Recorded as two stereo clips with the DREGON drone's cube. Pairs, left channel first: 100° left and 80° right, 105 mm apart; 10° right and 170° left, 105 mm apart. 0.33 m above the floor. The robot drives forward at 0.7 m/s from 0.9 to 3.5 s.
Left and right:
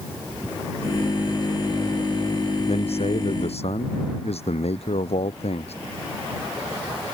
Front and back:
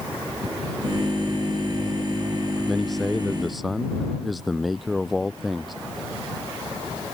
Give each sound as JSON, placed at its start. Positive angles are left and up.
{"t": 2.7, "sound": "a man speaking", "azimuth_deg": 75}